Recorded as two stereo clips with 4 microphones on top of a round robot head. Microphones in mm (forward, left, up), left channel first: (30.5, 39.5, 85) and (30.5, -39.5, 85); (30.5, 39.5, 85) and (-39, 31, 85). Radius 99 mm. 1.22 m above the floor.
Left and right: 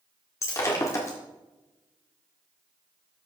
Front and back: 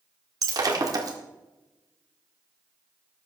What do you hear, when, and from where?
0.4 s breaking glass: 150° left, 1.8 m